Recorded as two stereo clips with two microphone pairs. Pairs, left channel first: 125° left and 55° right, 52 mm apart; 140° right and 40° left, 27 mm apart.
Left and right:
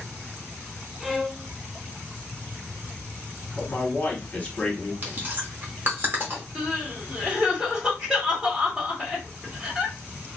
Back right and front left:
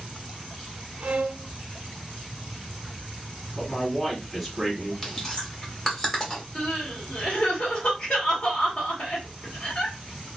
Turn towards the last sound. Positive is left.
turn(degrees=-120)